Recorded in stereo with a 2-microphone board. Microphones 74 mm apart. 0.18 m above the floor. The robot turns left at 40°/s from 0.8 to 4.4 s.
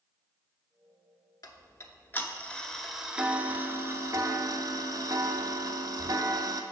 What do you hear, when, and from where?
1.4 s ticking: 60° left, 0.6 m; by 6.6 s 60° right, 0.6 m